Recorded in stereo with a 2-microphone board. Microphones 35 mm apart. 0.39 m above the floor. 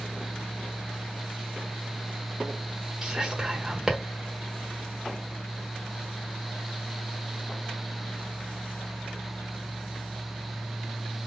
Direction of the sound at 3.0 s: 15° right (ahead or behind).